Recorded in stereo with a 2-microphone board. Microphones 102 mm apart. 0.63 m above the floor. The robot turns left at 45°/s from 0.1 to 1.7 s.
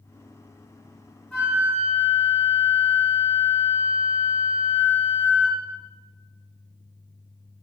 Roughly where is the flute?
Centre.